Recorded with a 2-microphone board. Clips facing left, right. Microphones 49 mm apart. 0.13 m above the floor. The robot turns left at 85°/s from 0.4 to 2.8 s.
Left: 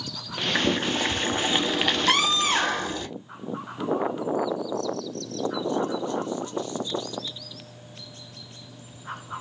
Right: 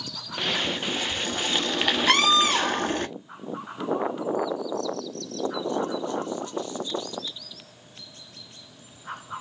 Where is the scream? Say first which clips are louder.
Right 4 dB; 175° left, 2.5 m; by 3.0 s 110° left, 2.5 m.